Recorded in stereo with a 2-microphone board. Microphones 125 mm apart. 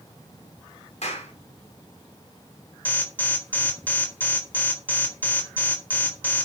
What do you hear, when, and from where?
1.0 s a clap: 65° left (ahead or behind), 4.5 m
2.9 s an alarm: 15° left (ahead or behind), 4 m